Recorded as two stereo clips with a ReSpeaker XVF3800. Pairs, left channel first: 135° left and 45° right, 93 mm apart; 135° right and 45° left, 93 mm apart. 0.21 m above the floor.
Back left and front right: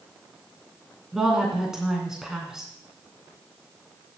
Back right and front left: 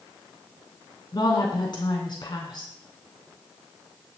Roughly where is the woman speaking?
Behind right.